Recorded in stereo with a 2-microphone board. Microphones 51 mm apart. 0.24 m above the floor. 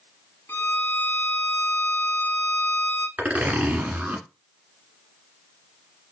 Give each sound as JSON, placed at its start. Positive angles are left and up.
{"t": 0.5, "sound": "a violin", "side_deg": 50, "distance_m": 0.6}
{"t": 3.2, "sound": "a zipper", "side_deg": -30, "distance_m": 1.8}